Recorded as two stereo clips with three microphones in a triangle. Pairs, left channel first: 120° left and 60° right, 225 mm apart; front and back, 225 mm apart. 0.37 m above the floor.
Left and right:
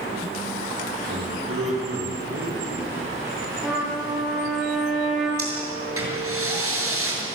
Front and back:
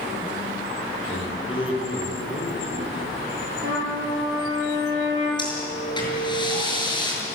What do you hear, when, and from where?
1.1 s a man speaking: 65° right, 9.5 m
3.6 s a trumpet: 150° right, 8 m
5.4 s breathing: 70° right, 7 m